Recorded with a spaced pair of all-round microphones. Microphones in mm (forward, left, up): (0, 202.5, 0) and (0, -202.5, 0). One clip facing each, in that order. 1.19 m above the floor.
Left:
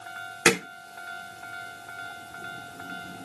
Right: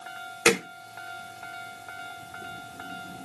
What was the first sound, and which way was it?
Hammering, 30° left (ahead or behind).